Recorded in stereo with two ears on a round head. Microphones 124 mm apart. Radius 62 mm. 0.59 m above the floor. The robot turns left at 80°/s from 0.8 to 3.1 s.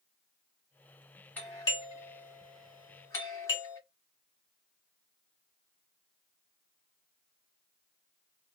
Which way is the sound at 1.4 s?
10° left (ahead or behind).